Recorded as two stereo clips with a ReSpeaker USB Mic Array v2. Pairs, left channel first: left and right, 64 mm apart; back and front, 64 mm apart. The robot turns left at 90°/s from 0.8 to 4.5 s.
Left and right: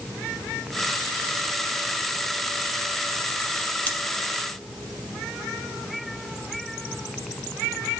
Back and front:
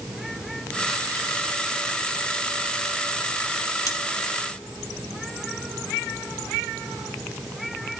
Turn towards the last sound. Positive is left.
turn(degrees=95)